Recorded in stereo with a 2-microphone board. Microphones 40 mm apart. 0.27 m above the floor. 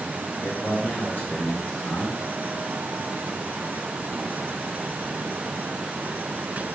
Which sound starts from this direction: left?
A man speaking, at 0.4 s.